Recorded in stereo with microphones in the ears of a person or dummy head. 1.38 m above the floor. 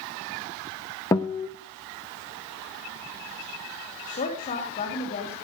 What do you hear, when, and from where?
1.1 s a guitar: 20° left (ahead or behind), 0.8 m
4.0 s a woman speaking: 40° left (ahead or behind), 2.5 m